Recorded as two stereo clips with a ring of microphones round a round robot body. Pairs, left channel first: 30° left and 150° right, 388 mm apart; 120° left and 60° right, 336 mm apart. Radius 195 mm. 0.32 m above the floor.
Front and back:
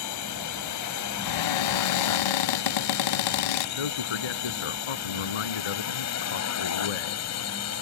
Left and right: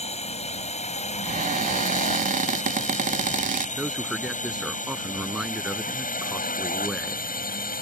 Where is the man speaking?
30° left.